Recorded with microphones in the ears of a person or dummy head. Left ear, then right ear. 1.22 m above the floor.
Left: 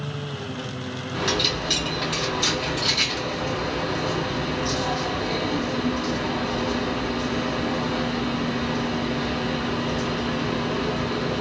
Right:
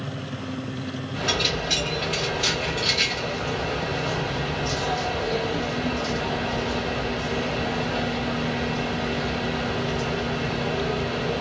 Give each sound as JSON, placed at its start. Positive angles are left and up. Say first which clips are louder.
{"t": 1.1, "sound": "a dropped coin", "louder": "left 1 dB", "side_deg": 25, "distance_m": 2.5}